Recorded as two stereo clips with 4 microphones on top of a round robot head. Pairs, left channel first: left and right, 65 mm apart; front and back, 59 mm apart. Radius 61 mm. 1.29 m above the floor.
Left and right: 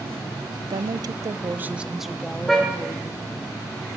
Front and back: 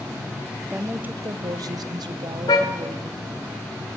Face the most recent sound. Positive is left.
turn(degrees=0)